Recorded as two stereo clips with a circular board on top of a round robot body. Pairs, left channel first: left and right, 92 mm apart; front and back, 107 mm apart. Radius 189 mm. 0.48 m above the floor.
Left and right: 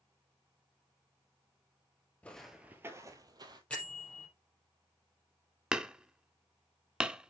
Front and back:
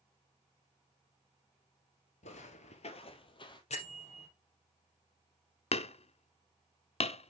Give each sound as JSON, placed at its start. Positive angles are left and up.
{"t": 2.2, "sound": "footsteps", "azimuth_deg": 15, "distance_m": 0.8}
{"t": 3.7, "sound": "a bell", "azimuth_deg": 10, "distance_m": 3.5}
{"t": 5.7, "sound": "hammering", "azimuth_deg": -10, "distance_m": 1.0}